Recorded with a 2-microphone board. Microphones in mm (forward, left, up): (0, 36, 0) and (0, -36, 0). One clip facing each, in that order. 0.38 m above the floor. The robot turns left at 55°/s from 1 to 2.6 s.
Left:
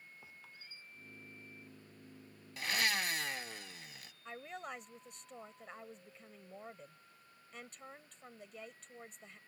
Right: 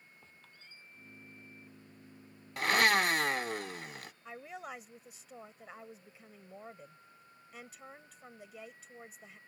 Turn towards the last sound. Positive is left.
turn(degrees=-5)  # may be behind; listen again after turning